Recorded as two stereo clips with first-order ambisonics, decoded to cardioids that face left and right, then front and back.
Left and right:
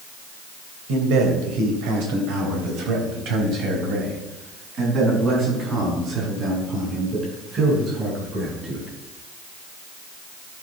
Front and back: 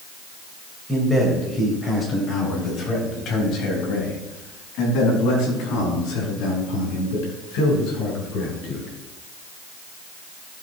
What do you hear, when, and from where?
0.9 s a man speaking: 90° right, 3 m; by 8.9 s 20° right, 8 m